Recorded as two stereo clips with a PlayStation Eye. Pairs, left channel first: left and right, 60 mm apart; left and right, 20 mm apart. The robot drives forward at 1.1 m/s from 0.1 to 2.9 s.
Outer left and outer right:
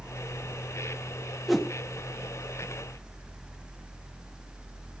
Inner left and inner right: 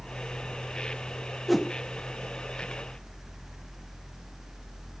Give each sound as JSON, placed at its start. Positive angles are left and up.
{"t": 1.5, "sound": "a whoosh", "side_deg": 0, "distance_m": 1.4}